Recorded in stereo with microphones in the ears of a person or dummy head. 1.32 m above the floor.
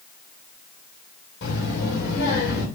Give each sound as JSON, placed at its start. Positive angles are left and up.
{"t": 1.4, "sound": "a child speaking", "side_deg": 65, "distance_m": 3.0}